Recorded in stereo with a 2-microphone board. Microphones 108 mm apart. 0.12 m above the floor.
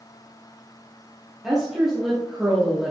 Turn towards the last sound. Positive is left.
turn(degrees=-5)  # may be behind; listen again after turning